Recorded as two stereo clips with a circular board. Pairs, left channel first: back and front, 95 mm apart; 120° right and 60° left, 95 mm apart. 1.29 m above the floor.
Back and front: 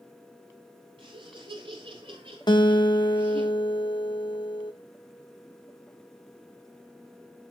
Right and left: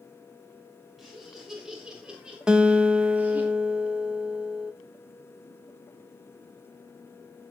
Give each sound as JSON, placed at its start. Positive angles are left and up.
{"t": 1.0, "sound": "laughter", "azimuth_deg": -30, "distance_m": 4.5}
{"t": 2.5, "sound": "a guitar", "azimuth_deg": 140, "distance_m": 1.8}